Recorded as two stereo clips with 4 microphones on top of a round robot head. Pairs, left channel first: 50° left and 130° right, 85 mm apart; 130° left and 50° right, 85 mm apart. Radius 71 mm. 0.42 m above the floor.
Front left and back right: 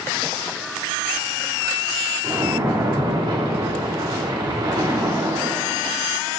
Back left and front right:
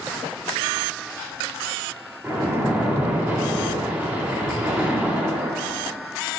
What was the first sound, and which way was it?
A splash, 115° right.